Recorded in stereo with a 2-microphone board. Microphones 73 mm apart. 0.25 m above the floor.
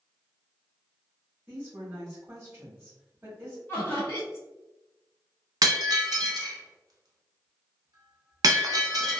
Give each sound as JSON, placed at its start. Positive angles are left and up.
{"t": 1.5, "sound": "a woman speaking", "side_deg": -25, "distance_m": 1.1}
{"t": 3.7, "sound": "laughter", "side_deg": 30, "distance_m": 1.9}
{"t": 5.6, "sound": "breaking glass", "side_deg": -55, "distance_m": 0.6}